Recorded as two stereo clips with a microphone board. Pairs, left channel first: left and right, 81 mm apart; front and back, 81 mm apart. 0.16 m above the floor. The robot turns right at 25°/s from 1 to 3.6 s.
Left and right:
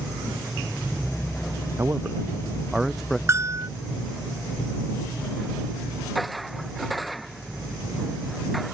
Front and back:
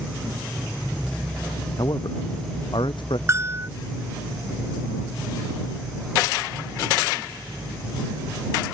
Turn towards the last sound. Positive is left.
turn(degrees=-125)